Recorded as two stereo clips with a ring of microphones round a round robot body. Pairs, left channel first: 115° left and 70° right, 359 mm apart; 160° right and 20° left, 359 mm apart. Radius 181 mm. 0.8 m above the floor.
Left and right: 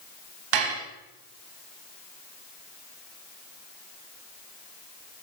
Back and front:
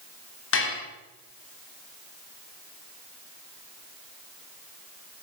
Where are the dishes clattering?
100° right, 4 m.